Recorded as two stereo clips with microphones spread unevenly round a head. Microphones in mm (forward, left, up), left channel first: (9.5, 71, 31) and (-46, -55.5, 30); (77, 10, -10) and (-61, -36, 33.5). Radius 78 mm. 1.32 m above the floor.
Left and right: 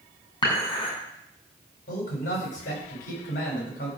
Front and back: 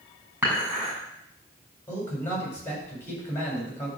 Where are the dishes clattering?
120° left, 7 m.